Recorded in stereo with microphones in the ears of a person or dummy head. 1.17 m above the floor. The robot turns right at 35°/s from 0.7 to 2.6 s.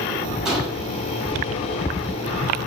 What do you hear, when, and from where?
0.5 s a gunshot: 5° right (ahead or behind), 0.9 m; by 0.9 s centre (ahead or behind), 0.9 m